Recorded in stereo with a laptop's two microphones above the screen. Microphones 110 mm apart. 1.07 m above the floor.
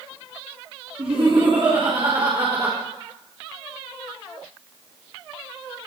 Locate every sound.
1.0 s laughter: 65° right (ahead or behind), 3.5 m; by 2.8 s 45° right (ahead or behind), 4.5 m